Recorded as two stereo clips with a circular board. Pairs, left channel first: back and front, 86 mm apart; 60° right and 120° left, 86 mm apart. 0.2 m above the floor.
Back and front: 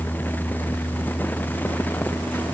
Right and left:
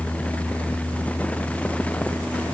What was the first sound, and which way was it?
Only background noise.